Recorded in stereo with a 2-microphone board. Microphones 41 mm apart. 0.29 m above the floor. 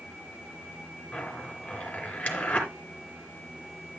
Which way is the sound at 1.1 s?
30° left (ahead or behind).